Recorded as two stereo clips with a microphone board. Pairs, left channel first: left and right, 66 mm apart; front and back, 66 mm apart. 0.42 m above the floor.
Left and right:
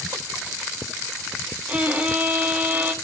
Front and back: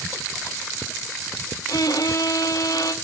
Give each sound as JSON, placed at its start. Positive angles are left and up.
{"t": 1.7, "sound": "a violin", "azimuth_deg": -25, "distance_m": 1.3}